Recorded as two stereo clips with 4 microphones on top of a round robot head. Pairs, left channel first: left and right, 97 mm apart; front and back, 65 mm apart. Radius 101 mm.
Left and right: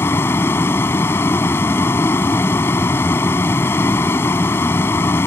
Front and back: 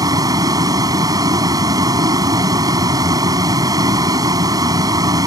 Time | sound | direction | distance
0.0 | a vehicle | 160° left | ?